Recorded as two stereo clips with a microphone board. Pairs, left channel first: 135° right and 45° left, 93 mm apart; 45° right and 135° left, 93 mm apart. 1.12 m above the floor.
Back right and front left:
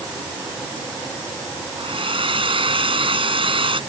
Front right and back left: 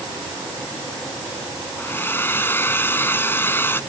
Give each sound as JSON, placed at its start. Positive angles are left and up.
{"t": 1.8, "sound": "a hair dryer", "azimuth_deg": 20}